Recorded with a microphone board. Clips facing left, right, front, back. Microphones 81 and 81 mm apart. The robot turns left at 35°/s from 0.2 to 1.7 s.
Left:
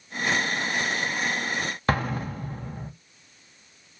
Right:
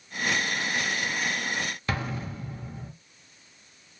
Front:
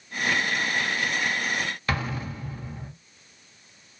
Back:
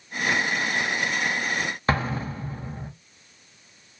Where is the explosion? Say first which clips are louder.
Left 10 dB, back 7 dB; 125° left, 0.6 m.